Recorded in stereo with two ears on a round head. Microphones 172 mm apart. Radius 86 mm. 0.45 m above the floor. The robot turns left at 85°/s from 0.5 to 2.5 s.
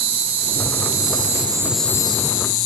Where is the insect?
70° right, 0.9 m; by 2.7 s 120° left, 0.9 m.